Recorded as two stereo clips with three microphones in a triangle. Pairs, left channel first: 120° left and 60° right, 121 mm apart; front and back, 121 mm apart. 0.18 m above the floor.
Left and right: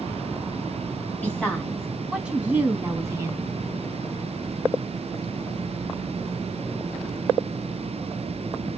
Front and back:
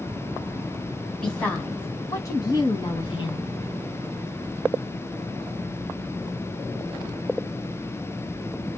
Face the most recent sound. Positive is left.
turn(degrees=-10)